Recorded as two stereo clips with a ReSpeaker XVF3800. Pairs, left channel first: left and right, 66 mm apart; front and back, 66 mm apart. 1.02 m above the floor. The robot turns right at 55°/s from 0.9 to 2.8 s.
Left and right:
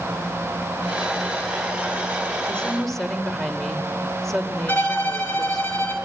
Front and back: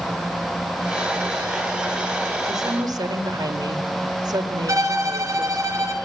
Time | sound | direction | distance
2.5 | a woman speaking | 160° left | 4 m
4.7 | a violin | 145° left | 5 m